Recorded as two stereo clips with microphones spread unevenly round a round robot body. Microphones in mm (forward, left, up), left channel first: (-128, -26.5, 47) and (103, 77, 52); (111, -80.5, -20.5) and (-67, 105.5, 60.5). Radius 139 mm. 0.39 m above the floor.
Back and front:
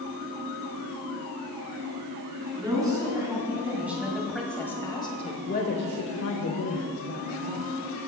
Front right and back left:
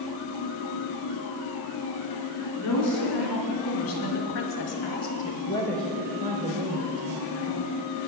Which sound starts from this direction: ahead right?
A woman speaking, at 2.6 s.